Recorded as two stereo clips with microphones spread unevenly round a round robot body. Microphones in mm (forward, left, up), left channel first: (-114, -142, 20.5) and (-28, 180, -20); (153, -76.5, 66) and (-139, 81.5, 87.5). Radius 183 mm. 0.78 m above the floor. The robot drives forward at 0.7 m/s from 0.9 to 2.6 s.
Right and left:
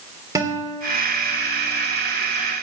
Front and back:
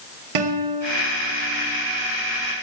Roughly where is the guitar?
Behind left.